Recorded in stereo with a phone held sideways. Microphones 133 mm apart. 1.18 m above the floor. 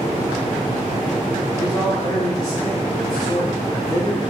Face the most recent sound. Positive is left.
turn(degrees=25)  # may be behind; listen again after turning